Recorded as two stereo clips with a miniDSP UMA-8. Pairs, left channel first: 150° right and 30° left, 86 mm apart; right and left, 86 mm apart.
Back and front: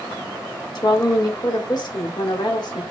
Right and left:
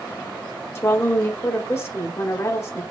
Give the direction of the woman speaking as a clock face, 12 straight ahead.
5 o'clock.